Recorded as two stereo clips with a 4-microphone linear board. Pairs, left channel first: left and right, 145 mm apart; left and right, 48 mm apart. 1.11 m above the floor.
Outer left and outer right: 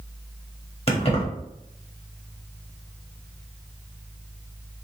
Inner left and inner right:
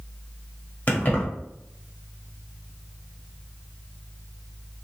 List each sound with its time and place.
0.9 s keys jangling: 40° left (ahead or behind), 1.4 m